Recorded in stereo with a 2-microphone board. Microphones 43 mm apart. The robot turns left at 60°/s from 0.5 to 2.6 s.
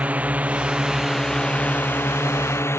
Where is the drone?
150° right; by 2.8 s 85° left.